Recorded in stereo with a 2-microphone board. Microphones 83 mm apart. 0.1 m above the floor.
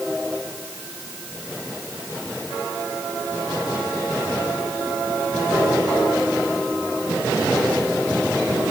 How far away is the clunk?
I don't hear a clunk.